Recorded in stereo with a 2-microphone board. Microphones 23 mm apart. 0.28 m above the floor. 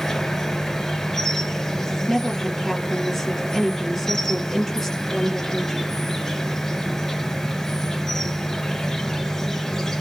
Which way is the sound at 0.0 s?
20° left (ahead or behind).